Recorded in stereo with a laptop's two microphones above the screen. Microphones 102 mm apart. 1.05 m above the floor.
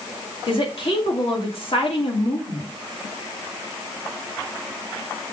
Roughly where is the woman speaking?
Left.